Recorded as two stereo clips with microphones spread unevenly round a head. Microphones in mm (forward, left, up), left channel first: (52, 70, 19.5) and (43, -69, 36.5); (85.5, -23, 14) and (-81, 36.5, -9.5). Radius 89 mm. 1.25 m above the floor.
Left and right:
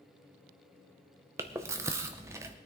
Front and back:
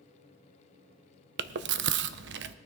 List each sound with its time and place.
1.4 s chewing: 170° right, 0.5 m